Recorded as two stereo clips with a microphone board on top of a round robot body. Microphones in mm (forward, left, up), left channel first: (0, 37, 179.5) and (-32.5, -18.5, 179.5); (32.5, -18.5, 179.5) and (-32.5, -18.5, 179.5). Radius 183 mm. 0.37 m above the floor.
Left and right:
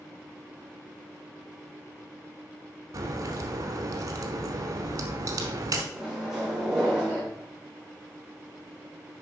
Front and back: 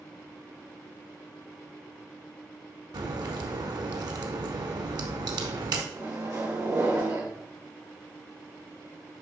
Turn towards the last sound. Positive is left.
turn(degrees=155)